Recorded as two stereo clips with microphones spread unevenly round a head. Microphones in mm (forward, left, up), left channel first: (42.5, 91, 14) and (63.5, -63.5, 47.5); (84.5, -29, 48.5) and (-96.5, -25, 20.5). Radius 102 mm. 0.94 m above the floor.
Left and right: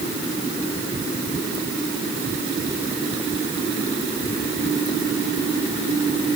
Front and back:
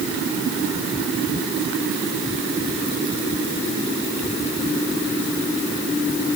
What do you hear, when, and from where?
Only background noise.